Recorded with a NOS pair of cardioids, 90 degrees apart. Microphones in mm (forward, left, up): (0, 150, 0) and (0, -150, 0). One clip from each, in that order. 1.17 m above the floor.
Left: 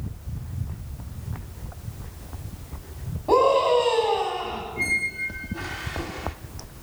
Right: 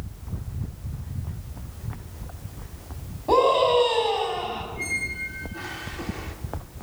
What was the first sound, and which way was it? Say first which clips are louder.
A scream: even; 5° left.